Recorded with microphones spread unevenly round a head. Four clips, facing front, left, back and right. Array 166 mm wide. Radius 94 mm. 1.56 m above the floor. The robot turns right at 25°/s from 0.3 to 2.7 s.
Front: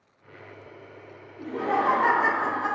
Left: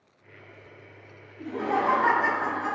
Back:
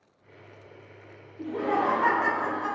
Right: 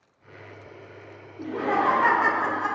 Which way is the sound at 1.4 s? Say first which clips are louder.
Right 2 dB, front 1 dB; 70° right.